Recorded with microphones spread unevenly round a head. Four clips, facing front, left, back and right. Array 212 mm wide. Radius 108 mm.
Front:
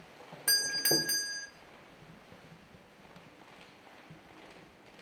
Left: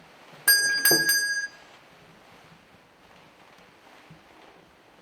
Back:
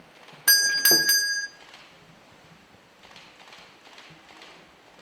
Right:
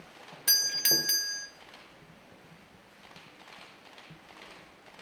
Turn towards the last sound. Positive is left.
turn(degrees=90)